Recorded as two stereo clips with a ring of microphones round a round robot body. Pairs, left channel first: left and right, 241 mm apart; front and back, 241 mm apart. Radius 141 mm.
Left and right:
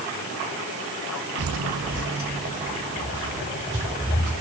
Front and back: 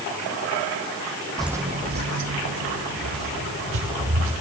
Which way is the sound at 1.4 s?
85° right.